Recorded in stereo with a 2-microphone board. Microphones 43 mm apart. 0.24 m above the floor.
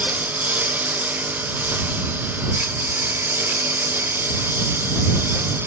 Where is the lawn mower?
40° right (ahead or behind); by 5.7 s 65° right (ahead or behind).